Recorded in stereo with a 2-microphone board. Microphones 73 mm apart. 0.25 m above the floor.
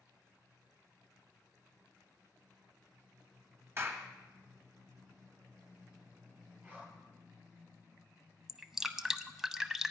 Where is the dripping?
5° right (ahead or behind), 0.5 m.